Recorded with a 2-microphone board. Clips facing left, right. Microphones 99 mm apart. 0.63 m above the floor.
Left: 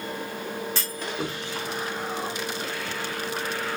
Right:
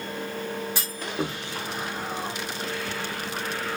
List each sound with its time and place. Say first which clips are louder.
0.8 s a clunk: right 1 dB; 10° right (ahead or behind), 0.9 m